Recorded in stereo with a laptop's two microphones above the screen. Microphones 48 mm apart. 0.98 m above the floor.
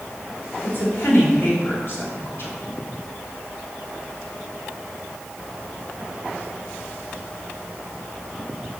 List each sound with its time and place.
0.6 s a woman speaking: 55° left (ahead or behind), 2.5 m